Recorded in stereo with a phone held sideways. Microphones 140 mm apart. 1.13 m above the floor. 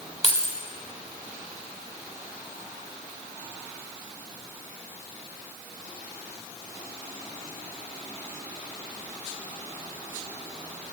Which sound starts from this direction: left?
Keys jangling, at 0.2 s.